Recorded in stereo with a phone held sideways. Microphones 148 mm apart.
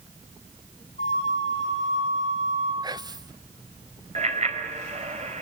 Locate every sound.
1.0 s a flute: 50° left (ahead or behind), 9 m
2.8 s whispering: 30° right (ahead or behind), 0.5 m
4.2 s a bicycle bell: 50° right (ahead or behind), 3.5 m